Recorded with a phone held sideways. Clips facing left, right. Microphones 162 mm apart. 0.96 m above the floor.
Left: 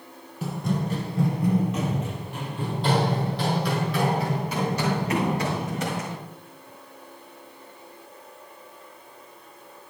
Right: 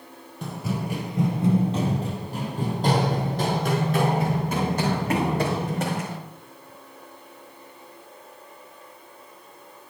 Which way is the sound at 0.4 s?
5° left (ahead or behind).